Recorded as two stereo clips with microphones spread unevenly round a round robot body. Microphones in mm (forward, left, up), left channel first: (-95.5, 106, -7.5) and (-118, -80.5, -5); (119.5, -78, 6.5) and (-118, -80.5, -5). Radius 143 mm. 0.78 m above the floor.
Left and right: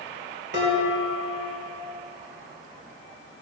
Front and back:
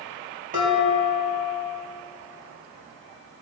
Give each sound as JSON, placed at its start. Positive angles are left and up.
{"t": 0.5, "sound": "dishes clattering", "azimuth_deg": -125, "distance_m": 4.0}